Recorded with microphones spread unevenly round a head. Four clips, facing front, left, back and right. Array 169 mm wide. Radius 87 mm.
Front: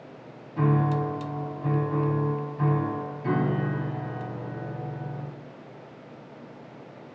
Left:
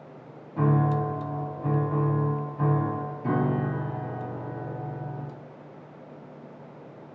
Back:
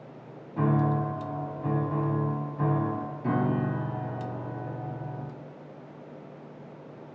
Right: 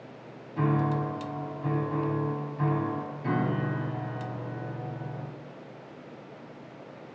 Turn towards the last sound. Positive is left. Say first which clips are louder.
# left 3 dB, front 1 dB
turn(degrees=145)